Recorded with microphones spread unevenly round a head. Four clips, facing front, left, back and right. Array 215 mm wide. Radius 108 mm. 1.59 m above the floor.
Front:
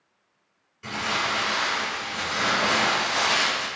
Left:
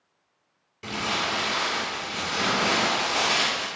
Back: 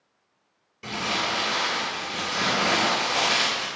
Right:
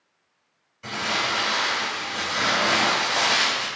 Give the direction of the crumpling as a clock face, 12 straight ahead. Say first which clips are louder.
Right 1 dB, front 1 dB; 8 o'clock.